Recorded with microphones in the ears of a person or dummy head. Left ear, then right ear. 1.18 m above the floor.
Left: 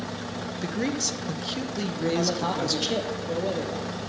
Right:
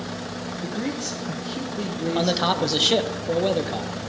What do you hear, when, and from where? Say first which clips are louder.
0.6 s a man speaking: left 2 dB; 30° left (ahead or behind), 0.6 m
2.1 s a man speaking: right 7 dB; 35° right (ahead or behind), 0.7 m